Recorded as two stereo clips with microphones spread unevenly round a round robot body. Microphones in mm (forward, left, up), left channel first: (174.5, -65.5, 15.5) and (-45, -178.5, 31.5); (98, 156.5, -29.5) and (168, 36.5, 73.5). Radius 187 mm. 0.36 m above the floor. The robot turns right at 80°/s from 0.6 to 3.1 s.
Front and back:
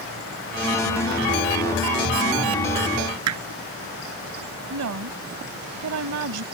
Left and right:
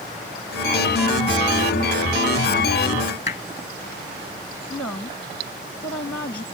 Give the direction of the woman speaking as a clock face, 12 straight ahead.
6 o'clock.